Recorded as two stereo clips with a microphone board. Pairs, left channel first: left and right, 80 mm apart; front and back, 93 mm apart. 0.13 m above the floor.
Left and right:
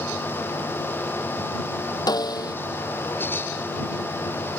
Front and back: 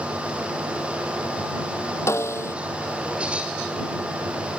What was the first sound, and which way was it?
A snare drum, 60° left.